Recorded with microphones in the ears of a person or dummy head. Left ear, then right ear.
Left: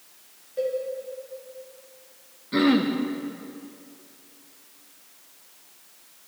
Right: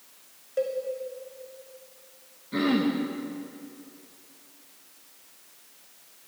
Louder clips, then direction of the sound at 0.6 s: Left 1 dB; 40° right (ahead or behind).